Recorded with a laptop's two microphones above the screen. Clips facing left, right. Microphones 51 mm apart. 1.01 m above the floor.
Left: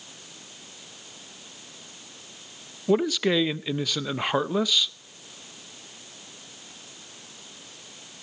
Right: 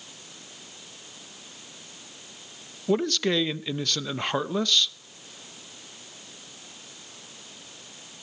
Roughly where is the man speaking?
Centre.